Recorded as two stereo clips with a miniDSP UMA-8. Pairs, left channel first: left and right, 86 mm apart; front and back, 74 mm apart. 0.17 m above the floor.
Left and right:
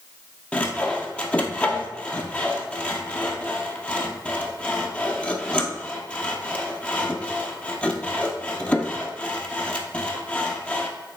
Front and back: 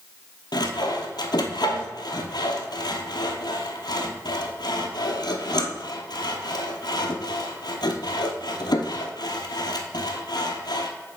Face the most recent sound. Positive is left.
turn(degrees=15)